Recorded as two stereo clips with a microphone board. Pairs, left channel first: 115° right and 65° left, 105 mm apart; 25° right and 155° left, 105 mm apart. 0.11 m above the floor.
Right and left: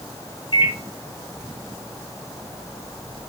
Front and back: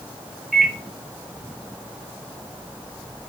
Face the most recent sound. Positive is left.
turn(degrees=-115)